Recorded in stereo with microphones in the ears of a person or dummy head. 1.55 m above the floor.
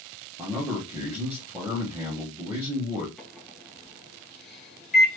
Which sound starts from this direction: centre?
A microwave, at 3.2 s.